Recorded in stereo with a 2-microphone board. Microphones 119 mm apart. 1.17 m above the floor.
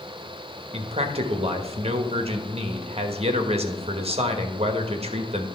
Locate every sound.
0.7 s a man speaking: 55° right (ahead or behind), 1.1 m